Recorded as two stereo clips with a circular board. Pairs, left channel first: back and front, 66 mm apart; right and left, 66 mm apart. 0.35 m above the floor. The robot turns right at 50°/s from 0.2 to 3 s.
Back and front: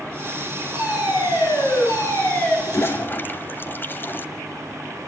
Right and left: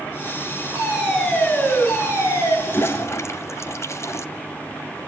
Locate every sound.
0.8 s a fire alarm: 160° left, 7.5 m; by 2.6 s 110° right, 7.5 m
2.7 s a toilet flushing: 140° right, 1.3 m; by 4.2 s 125° right, 1.3 m